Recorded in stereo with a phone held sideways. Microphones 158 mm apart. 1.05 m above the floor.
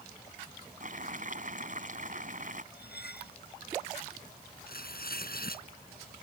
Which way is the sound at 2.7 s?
80° left.